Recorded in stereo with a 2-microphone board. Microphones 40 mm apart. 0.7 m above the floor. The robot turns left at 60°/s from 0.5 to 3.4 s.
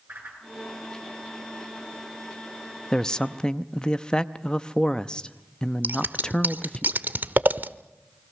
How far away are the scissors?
About 0.8 m.